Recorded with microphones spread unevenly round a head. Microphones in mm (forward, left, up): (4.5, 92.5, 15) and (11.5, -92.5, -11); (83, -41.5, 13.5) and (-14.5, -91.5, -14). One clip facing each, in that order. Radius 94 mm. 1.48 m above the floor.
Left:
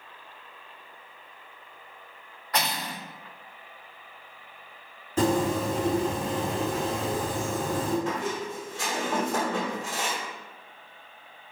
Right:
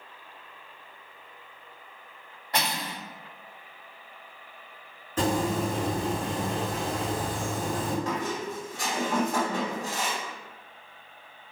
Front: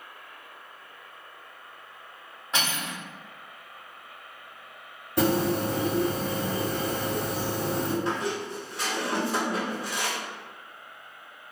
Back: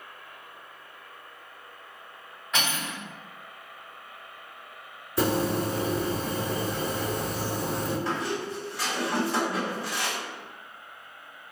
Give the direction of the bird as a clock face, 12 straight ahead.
11 o'clock.